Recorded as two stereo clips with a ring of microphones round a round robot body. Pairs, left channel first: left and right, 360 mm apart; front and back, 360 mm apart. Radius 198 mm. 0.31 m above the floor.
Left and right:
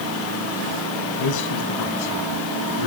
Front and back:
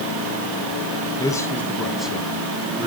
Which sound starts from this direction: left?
A man speaking, at 1.2 s.